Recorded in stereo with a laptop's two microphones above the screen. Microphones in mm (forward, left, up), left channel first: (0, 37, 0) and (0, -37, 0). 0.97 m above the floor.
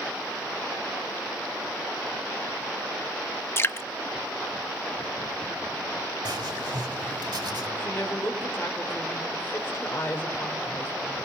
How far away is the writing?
About 2.5 m.